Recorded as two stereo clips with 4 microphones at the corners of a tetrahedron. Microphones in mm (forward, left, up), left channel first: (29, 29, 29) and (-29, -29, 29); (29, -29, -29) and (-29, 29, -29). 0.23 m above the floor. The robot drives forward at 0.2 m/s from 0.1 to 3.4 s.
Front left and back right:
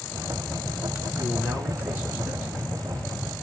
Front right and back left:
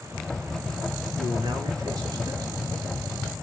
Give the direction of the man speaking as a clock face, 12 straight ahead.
7 o'clock.